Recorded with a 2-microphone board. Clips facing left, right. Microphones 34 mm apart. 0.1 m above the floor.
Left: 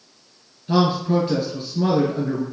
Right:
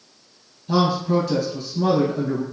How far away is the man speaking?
About 1.5 m.